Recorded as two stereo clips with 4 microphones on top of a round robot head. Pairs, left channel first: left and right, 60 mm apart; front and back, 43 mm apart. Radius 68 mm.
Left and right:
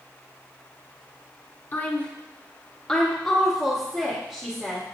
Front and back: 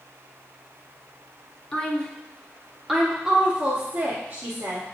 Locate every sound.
1.7 s a woman speaking: 55° left, 1.4 m; by 4.8 s 150° right, 1.5 m